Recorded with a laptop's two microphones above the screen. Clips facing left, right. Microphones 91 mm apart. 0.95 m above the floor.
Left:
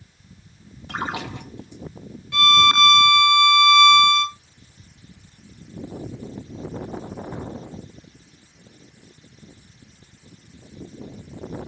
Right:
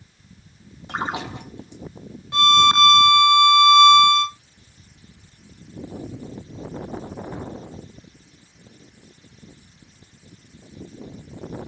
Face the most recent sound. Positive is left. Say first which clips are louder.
# right 1 dB
turn(degrees=-30)  # may be behind; listen again after turning